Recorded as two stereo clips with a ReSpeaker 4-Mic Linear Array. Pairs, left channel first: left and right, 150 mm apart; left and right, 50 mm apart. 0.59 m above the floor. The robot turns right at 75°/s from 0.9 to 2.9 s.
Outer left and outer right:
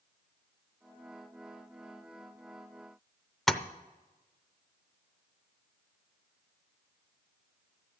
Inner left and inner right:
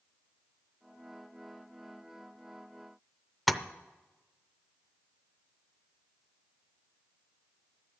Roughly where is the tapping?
Centre.